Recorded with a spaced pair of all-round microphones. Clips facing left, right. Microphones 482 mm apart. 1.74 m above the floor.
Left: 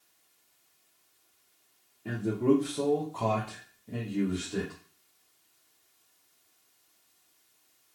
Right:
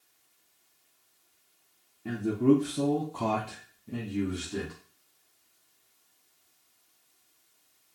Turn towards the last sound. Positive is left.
turn(degrees=-20)  # may be behind; listen again after turning